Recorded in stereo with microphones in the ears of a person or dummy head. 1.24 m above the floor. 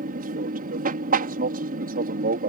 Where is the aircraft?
45° right (ahead or behind).